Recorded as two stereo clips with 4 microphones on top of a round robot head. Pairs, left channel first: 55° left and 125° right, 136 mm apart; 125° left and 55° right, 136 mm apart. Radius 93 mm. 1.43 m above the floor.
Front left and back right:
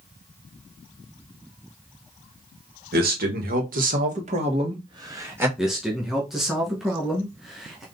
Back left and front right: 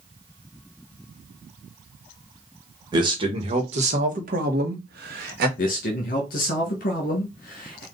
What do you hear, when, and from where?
2.9 s a man speaking: 115° right, 1.6 m; by 5.5 s 50° right, 1.3 m
5.6 s a man speaking: 150° left, 1.2 m